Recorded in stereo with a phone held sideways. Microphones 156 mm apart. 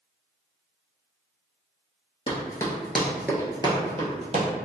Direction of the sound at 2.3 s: 30° left (ahead or behind).